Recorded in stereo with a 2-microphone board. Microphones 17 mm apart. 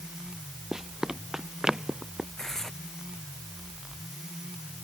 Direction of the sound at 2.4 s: 20° left (ahead or behind).